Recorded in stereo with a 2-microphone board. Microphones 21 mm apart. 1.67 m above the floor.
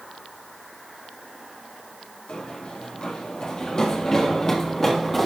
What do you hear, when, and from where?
2.3 s running footsteps: 55° left (ahead or behind), 3.5 m; by 5.3 s 10° left (ahead or behind), 3 m